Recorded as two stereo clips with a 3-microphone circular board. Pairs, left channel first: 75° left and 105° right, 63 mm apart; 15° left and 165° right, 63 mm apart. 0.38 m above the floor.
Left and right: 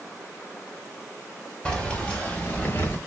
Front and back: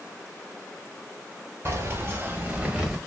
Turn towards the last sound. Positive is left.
turn(degrees=115)